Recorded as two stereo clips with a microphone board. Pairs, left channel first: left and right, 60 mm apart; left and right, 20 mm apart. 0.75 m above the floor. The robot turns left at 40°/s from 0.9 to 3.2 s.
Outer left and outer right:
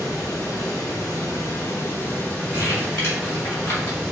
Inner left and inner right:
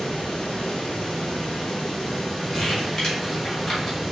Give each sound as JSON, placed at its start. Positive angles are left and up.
{"t": 0.0, "sound": "running water", "azimuth_deg": 95, "distance_m": 1.8}
{"t": 2.5, "sound": "crumpling", "side_deg": 55, "distance_m": 2.0}